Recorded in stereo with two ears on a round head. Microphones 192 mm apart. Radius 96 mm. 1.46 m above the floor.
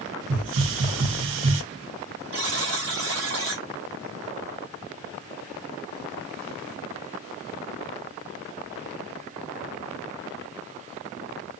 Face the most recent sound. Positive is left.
turn(degrees=-65)  # may be behind; listen again after turning